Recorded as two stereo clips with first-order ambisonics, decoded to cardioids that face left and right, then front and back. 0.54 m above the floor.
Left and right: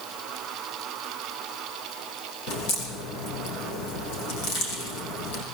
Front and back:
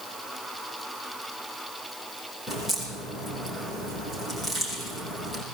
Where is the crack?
95° left, 5.5 m.